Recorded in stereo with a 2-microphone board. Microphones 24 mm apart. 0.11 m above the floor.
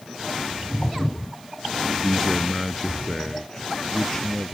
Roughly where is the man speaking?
Centre.